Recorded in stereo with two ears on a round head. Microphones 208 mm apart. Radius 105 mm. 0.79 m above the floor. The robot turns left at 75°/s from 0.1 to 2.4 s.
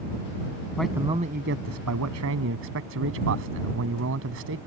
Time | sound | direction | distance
0.8 | a man speaking | 5° left | ?